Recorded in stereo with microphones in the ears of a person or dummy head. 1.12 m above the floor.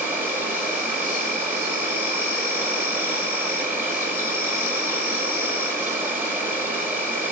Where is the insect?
10° right (ahead or behind), 1.6 m.